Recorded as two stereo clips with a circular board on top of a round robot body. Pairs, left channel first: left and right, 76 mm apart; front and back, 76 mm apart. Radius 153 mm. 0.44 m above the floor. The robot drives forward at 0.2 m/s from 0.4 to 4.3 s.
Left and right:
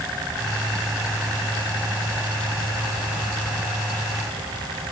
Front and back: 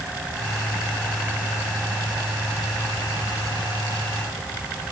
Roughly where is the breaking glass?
No breaking glass in this recording.